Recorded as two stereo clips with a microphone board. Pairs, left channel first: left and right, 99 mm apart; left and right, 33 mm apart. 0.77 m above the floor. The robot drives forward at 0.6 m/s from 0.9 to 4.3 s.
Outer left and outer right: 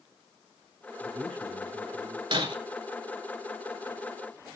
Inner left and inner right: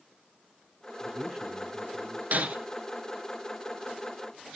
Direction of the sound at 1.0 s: 10° left (ahead or behind).